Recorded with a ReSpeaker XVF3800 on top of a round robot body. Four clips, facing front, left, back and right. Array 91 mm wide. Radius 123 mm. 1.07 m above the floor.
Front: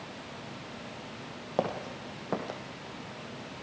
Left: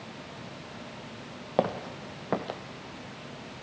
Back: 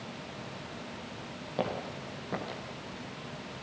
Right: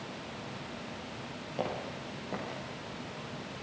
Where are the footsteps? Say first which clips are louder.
Left 8 dB, front 2 dB; 70° left, 2.5 m; by 2.6 s 65° left, 1.8 m.